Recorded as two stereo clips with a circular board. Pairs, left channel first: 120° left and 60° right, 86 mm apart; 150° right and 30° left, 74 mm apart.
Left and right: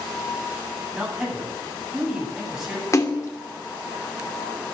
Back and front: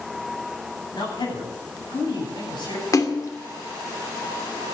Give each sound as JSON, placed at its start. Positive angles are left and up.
{"t": 0.9, "sound": "a man speaking", "azimuth_deg": -145, "distance_m": 10.0}
{"t": 2.9, "sound": "a splash", "azimuth_deg": 170, "distance_m": 2.5}